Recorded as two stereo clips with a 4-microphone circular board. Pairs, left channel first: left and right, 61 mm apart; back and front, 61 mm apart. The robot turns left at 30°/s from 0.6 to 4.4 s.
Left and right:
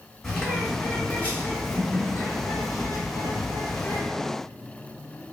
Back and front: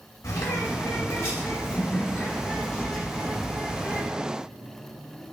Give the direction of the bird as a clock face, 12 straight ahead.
6 o'clock.